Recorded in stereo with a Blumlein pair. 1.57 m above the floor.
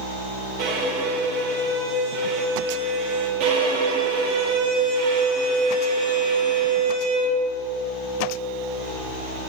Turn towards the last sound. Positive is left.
turn(degrees=-45)